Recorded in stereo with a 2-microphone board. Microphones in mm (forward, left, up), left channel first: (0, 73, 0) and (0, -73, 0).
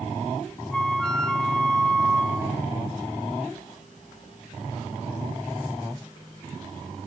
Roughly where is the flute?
Centre.